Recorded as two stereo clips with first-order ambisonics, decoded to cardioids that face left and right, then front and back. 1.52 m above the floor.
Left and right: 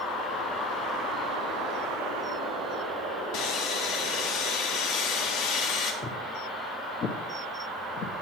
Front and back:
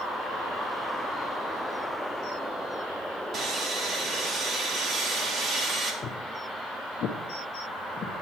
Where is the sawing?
120° left, 2.0 m.